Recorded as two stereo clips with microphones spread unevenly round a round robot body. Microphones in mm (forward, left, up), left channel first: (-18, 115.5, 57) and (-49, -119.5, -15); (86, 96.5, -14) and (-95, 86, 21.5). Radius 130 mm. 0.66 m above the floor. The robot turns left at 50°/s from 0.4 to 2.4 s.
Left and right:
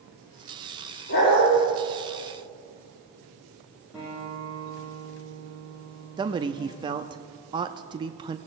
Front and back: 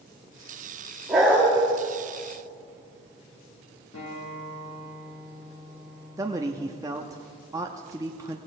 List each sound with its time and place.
1.1 s a dog barking: 100° left, 6.5 m; by 1.5 s 80° left, 6.5 m
3.9 s a guitar: 10° right, 7.5 m
6.2 s a man speaking: 100° right, 0.6 m